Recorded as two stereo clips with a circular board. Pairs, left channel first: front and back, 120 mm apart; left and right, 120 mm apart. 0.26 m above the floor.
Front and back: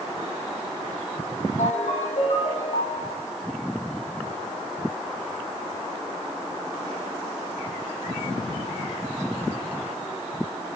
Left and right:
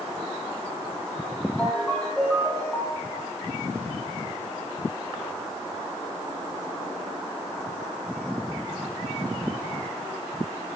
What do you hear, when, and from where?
1.6 s a ringtone: 10° left, 6.5 m